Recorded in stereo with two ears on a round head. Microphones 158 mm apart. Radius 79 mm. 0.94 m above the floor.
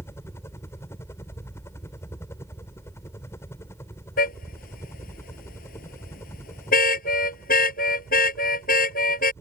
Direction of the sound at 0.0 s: 15° left (ahead or behind).